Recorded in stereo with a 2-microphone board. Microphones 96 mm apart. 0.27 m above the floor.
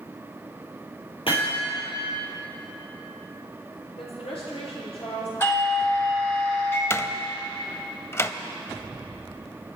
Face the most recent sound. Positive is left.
turn(degrees=25)  # may be behind; listen again after turning